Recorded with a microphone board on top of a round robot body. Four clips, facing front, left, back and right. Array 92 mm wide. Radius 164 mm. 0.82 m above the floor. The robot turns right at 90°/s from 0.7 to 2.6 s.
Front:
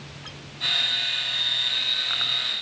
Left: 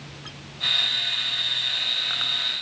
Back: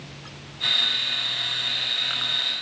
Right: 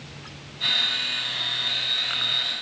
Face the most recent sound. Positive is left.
No sound to turn to.